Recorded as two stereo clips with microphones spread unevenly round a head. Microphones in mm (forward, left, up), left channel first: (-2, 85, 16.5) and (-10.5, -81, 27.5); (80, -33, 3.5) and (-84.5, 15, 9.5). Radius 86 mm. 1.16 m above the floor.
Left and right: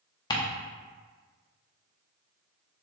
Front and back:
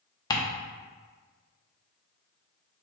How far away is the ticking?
About 0.6 m.